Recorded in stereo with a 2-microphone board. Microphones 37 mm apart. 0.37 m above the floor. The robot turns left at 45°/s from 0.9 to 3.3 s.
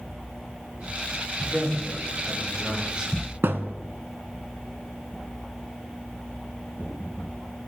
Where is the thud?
85° right, 0.8 m.